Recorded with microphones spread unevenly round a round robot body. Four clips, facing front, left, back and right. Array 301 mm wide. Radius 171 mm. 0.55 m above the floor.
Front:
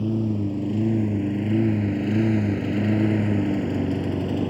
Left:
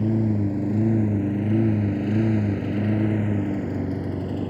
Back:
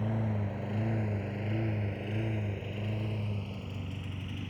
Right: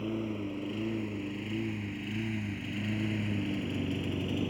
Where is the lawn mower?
70° left; by 4.5 s 10° left.